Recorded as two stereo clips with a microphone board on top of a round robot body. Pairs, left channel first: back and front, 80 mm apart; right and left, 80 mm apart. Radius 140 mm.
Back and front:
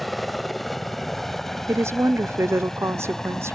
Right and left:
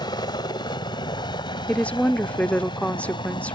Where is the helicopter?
90° right; by 3.6 s 95° right.